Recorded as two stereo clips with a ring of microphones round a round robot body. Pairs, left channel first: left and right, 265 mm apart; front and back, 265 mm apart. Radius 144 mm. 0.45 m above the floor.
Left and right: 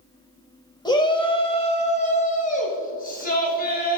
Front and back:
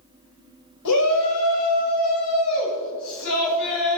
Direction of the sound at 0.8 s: 15° left.